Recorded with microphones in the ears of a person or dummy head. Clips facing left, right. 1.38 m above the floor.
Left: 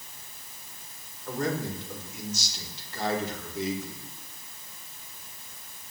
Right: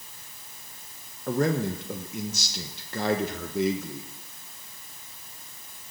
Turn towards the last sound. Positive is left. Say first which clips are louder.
# right 5 dB
turn(degrees=-50)  # may be behind; listen again after turning